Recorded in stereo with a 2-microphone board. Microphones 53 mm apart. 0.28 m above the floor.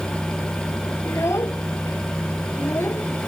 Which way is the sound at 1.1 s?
65° left (ahead or behind).